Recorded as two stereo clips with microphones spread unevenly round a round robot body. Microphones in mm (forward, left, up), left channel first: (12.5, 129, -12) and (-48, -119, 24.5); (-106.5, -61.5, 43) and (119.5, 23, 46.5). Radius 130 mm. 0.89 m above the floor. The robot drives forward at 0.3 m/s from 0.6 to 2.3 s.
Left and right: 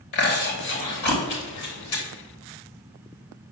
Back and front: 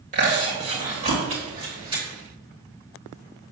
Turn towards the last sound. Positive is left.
turn(degrees=95)